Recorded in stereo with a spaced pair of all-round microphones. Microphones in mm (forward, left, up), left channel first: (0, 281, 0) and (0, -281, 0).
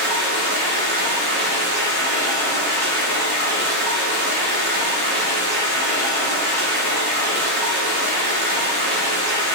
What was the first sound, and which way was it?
Running water, 40° left (ahead or behind).